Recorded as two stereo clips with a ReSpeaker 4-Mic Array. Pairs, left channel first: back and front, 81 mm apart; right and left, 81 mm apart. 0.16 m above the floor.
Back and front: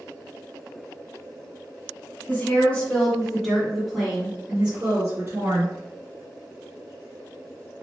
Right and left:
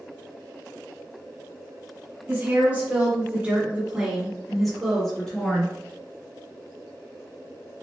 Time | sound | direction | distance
2.3 | a woman speaking | 125° left | 2.0 m